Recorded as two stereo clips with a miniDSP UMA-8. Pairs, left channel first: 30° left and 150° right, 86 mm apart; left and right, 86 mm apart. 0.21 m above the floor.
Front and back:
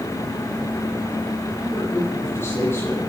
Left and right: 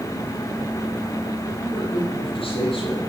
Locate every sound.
1.6 s a man speaking: 95° left, 8.5 m